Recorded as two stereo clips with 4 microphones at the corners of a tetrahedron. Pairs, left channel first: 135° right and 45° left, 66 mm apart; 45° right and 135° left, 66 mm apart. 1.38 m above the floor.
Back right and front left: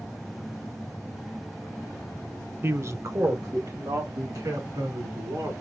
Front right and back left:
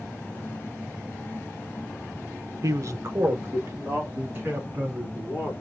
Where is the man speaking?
105° left, 0.5 m; by 5.5 s 75° left, 3.5 m.